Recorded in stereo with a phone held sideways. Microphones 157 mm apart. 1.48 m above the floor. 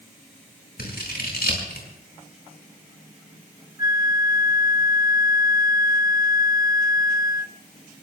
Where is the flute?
25° right (ahead or behind), 0.6 m.